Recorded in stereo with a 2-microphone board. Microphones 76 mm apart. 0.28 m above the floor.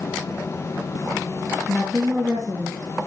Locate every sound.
1.7 s a woman speaking: 15° left (ahead or behind), 2.5 m